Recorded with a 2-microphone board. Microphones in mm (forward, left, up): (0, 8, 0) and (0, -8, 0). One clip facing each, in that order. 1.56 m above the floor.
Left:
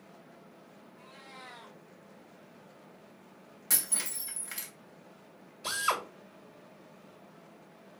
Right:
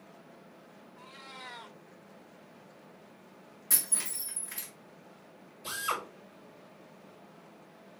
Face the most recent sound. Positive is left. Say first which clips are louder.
# left 3 dB
turn(degrees=60)  # may be behind; listen again after turning